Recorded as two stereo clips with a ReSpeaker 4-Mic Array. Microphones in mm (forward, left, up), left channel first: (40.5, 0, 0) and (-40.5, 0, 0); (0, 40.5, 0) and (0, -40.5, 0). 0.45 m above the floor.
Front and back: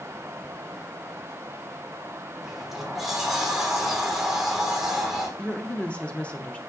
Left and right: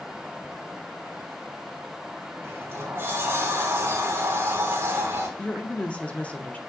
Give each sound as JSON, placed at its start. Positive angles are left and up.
{"t": 2.4, "sound": "a sliding door", "azimuth_deg": -100, "distance_m": 1.4}
{"t": 5.4, "sound": "a woman speaking", "azimuth_deg": 45, "distance_m": 0.8}